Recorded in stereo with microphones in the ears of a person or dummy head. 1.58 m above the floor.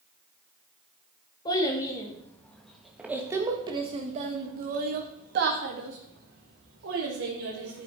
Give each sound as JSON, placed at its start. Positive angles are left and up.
{"t": 1.4, "sound": "a child speaking", "side_deg": 25, "distance_m": 2.0}